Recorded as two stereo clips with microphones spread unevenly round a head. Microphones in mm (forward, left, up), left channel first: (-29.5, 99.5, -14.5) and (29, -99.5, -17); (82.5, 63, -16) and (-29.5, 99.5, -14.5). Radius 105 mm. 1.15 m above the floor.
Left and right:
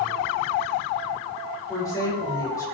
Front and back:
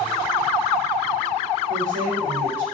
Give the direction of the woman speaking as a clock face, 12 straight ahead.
6 o'clock.